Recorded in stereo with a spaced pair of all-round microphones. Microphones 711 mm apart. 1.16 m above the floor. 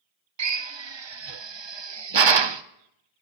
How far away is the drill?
About 0.6 m.